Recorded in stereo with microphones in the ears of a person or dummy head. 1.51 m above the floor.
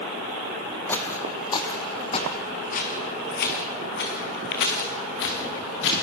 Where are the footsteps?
10° left (ahead or behind), 2.5 m; by 5.9 s 70° left (ahead or behind), 6 m.